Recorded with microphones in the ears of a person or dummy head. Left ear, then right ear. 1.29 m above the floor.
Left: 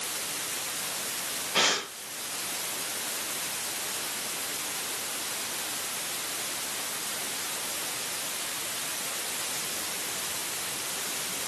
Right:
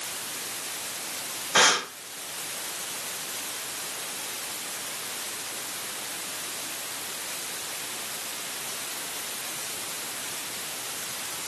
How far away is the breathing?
About 1.2 m.